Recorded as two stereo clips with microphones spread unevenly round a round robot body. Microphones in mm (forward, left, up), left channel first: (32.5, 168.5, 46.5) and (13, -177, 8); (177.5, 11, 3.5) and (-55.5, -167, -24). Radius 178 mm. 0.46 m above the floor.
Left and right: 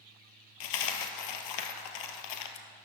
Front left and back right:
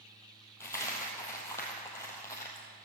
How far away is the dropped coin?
About 1.2 m.